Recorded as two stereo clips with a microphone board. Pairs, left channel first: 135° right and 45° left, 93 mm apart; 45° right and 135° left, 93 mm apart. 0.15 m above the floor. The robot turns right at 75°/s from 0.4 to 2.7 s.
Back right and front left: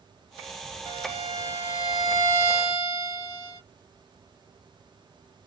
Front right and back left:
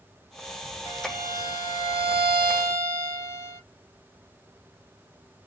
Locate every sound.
0.8 s a violin: 45° left, 1.7 m; by 3.6 s 175° right, 1.7 m